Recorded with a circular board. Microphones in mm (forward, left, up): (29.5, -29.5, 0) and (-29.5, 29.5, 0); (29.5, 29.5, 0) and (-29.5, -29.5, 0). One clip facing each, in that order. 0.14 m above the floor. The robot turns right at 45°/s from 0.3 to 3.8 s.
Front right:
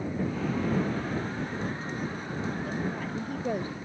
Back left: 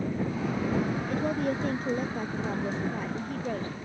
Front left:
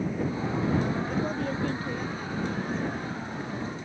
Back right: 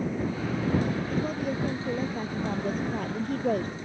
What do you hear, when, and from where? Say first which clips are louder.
1.1 s a woman speaking: back left 5 dB, even; 130° left; by 3.8 s 115° right